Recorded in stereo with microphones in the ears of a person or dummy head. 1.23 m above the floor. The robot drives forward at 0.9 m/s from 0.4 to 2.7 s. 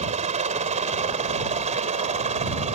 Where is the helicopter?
35° right (ahead or behind).